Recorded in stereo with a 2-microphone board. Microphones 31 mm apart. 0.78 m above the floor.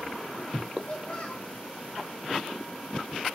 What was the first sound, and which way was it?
A child speaking, 25° left (ahead or behind).